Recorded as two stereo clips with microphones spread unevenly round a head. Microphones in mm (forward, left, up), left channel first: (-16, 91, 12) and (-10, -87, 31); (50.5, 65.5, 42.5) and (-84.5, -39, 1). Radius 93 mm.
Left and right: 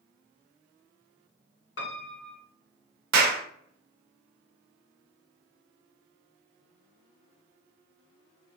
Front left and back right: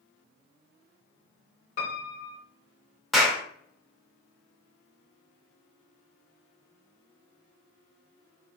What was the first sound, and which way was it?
A piano, 65° left.